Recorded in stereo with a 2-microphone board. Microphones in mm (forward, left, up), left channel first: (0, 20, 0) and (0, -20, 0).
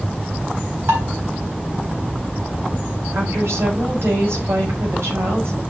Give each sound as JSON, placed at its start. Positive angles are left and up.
{"t": 0.9, "sound": "dishes clattering", "side_deg": -70, "distance_m": 4.0}
{"t": 3.1, "sound": "a woman speaking", "side_deg": -85, "distance_m": 5.5}